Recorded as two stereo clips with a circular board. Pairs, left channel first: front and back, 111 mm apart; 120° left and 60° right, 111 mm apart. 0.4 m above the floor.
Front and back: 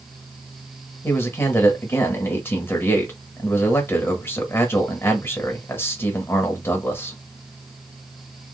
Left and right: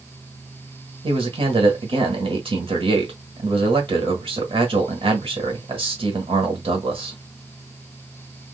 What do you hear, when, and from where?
1.0 s a man speaking: 65° right, 1.3 m